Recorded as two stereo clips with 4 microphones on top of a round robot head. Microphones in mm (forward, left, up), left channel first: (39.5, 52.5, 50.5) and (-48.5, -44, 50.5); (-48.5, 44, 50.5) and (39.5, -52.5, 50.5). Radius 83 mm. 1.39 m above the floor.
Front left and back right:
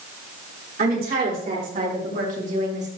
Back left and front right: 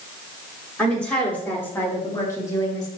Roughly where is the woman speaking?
Behind right.